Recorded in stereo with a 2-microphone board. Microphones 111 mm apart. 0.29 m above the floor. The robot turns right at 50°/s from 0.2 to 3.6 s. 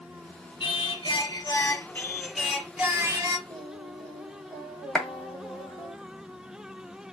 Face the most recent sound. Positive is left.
turn(degrees=10)  # may be behind; listen again after turning